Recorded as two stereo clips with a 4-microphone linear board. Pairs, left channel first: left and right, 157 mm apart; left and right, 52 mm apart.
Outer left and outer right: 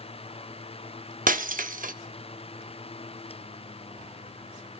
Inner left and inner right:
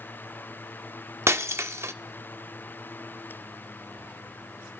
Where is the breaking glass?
60° right (ahead or behind), 0.5 m.